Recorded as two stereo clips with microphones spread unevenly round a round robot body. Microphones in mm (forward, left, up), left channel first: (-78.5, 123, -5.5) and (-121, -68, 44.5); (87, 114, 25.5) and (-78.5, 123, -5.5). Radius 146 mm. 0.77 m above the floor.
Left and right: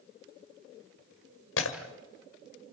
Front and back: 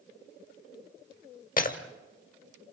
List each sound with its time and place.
1.6 s breaking glass: 40° left, 1.6 m